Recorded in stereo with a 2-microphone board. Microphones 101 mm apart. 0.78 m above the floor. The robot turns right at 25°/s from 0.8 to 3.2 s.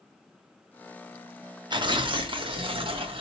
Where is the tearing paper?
120° right, 0.7 m; by 3.2 s 80° right, 0.7 m.